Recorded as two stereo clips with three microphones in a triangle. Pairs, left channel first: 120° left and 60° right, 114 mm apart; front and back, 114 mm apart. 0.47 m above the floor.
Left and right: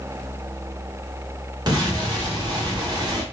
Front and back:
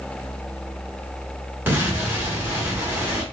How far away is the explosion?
About 1.1 m.